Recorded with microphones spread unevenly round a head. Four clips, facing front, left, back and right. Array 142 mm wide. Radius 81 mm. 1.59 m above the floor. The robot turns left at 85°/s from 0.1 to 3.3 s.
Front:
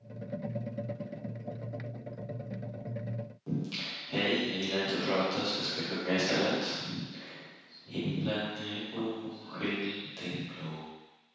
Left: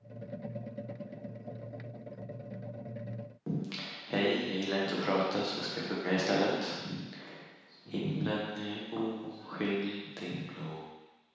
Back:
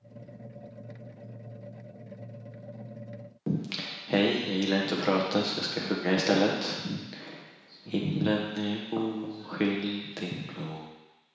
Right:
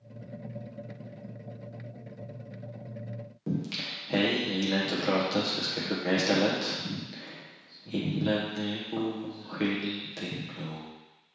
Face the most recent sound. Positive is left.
turn(degrees=-170)